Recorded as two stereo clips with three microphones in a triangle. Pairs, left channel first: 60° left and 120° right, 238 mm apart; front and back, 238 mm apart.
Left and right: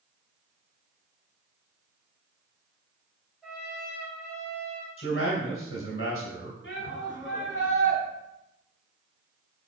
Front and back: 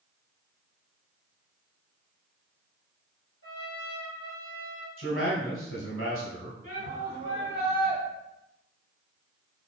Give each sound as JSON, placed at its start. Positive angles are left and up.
{"t": 3.4, "sound": "a trumpet", "azimuth_deg": -30, "distance_m": 3.5}
{"t": 5.0, "sound": "a man speaking", "azimuth_deg": 30, "distance_m": 2.5}
{"t": 6.6, "sound": "a shout", "azimuth_deg": 20, "distance_m": 4.0}